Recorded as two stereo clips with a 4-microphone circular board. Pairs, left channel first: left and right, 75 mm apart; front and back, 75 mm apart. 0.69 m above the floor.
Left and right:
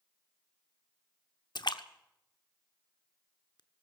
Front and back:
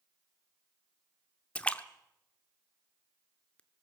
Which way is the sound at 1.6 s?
75° left.